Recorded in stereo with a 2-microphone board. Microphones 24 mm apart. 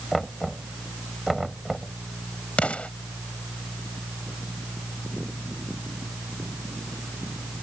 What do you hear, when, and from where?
0.1 s knocking: centre (ahead or behind)
2.6 s an explosion: 55° left (ahead or behind)